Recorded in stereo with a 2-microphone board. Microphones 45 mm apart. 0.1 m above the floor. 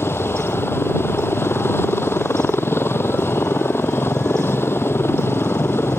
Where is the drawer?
I don't hear a drawer.